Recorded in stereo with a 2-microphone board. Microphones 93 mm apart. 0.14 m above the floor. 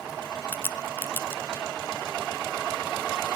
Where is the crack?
25° left (ahead or behind), 0.7 m.